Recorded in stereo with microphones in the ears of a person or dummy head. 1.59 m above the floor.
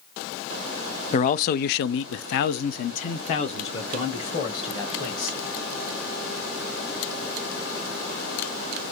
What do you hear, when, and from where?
1.1 s a man speaking: 40° left (ahead or behind), 0.6 m; by 5.4 s 20° left (ahead or behind), 2 m